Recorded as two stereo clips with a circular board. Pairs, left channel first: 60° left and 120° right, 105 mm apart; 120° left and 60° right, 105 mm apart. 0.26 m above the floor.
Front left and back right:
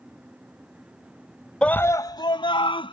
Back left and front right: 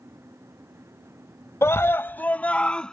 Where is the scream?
130° left; by 2.9 s 40° left.